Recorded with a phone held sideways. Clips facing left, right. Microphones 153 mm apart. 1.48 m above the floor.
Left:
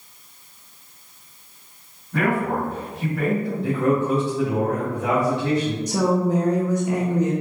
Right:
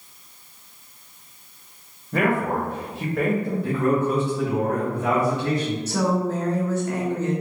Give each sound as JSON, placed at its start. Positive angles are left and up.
{"t": 2.1, "sound": "a man speaking", "side_deg": -75, "distance_m": 1.3}
{"t": 3.6, "sound": "a man speaking", "side_deg": 70, "distance_m": 1.3}
{"t": 5.9, "sound": "a woman speaking", "side_deg": 15, "distance_m": 0.8}